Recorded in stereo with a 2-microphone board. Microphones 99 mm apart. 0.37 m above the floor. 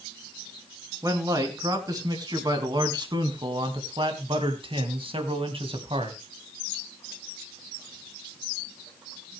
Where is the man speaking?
35° right (ahead or behind), 4 m; by 6.2 s 70° right (ahead or behind), 2.5 m.